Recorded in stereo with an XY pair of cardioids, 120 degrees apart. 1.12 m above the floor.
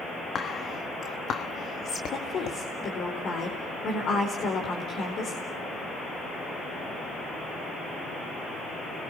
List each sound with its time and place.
0.3 s whispering: 50° left, 1.3 m
2.1 s a woman speaking: 50° left, 4 m